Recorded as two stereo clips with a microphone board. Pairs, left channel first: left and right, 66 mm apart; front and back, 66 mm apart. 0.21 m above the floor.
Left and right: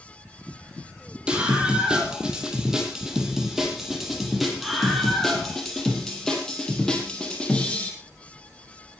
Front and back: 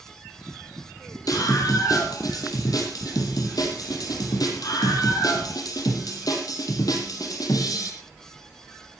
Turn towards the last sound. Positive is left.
turn(degrees=15)